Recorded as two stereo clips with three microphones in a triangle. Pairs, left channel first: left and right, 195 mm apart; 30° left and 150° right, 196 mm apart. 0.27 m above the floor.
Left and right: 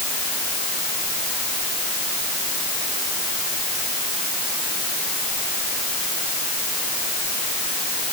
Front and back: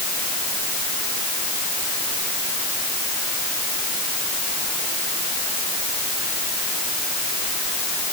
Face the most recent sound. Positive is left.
No sound to turn to.